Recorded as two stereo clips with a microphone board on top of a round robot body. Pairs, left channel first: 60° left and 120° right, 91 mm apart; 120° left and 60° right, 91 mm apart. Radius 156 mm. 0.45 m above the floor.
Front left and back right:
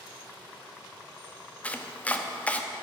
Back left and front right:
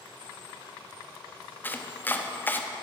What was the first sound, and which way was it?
Chopping, 105° left.